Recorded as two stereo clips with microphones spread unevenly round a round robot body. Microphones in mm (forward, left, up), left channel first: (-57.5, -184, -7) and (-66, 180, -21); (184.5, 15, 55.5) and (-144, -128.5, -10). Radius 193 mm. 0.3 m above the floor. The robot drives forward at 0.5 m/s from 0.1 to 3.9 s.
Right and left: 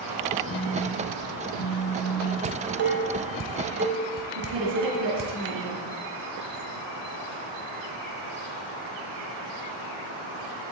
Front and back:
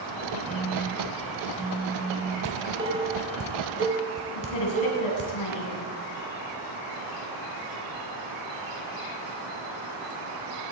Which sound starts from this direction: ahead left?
A woman speaking, at 4.3 s.